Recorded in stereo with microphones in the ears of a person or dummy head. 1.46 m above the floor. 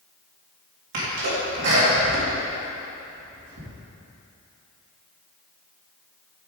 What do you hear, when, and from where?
0.9 s a sneeze: 70° right (ahead or behind), 3 m